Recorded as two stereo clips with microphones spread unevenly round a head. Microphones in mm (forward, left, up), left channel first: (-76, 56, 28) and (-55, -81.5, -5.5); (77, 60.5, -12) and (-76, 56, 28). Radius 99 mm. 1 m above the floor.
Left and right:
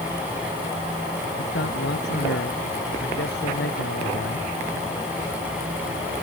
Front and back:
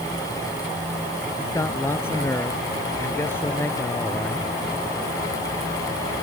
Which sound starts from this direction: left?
A man speaking, at 1.4 s.